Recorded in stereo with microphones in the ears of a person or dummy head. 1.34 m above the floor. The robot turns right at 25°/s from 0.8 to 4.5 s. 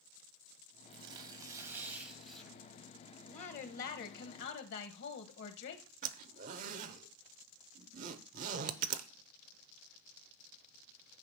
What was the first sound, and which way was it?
Tearing paper, 35° right.